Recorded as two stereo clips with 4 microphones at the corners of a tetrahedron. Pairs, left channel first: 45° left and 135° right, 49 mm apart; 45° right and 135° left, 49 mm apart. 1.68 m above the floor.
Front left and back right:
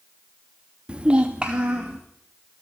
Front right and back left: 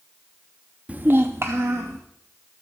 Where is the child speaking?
175° left, 0.5 m; by 2.0 s 155° left, 1.5 m.